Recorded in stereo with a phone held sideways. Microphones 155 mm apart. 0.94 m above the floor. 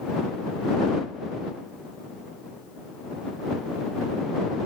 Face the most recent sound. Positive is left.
No sound to turn to.